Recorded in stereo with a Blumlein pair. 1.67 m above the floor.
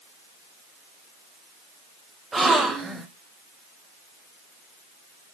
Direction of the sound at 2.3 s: 10° right.